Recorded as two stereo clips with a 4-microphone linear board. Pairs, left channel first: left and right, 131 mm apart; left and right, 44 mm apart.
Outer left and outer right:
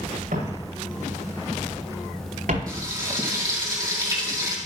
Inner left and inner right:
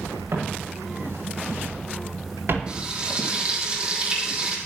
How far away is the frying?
About 3.5 m.